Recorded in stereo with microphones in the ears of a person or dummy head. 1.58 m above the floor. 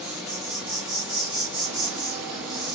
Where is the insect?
15° right (ahead or behind), 0.9 m.